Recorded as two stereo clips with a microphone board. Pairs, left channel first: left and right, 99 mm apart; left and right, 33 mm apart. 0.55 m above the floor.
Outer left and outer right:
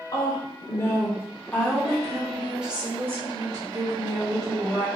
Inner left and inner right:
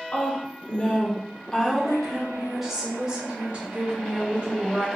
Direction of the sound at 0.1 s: 40° left (ahead or behind).